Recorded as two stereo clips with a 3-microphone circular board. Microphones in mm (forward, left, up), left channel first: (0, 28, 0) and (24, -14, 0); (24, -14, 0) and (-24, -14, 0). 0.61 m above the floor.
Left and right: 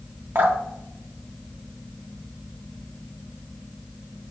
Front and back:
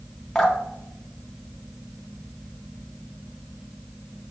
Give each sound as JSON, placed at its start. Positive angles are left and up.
{"t": 0.3, "sound": "dripping", "azimuth_deg": -80, "distance_m": 1.9}